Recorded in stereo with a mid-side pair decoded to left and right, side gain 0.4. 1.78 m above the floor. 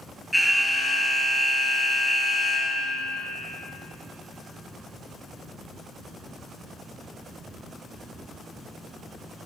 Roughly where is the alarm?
Ahead.